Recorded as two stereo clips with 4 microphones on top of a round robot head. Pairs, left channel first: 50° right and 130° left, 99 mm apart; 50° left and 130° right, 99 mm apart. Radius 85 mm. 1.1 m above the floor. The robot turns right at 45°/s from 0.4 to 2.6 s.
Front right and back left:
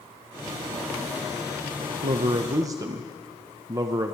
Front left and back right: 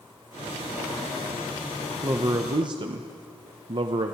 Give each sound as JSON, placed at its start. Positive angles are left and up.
{"t": 2.0, "sound": "a man speaking", "azimuth_deg": 160, "distance_m": 0.6}